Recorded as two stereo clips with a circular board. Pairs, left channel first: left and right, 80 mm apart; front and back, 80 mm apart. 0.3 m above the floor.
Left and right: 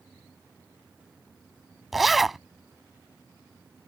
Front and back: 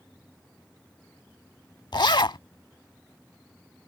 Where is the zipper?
Straight ahead.